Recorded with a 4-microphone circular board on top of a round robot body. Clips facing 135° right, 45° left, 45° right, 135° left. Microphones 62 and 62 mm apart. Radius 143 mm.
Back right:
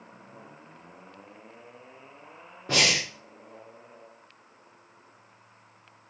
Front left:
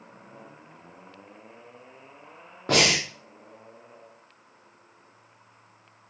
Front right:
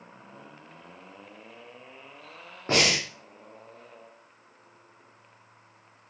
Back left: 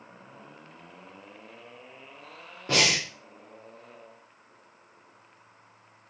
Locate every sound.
2.7 s breathing: 20° left, 0.5 m